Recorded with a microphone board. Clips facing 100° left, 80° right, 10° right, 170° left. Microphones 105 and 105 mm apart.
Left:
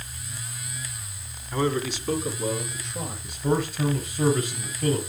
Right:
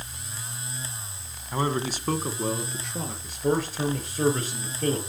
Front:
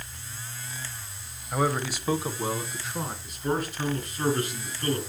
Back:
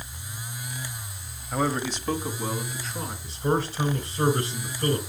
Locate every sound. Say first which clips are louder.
1.5 s a man speaking: left 2 dB, even; 100° right, 0.9 m; by 3.1 s 80° right, 2.5 m
3.2 s a man speaking: even, back 5 dB; 130° right, 3 m